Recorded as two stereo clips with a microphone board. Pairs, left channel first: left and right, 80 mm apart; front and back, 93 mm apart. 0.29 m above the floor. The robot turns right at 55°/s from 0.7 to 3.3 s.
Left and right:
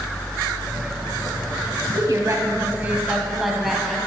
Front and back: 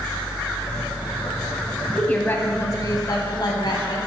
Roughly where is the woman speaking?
Right.